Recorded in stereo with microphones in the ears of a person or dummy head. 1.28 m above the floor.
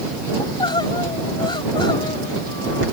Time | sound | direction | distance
0.4 | crying | 20° left (ahead or behind) | ?